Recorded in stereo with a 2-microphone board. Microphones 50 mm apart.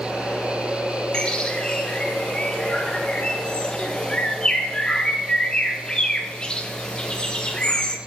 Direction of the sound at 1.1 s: 20° left (ahead or behind).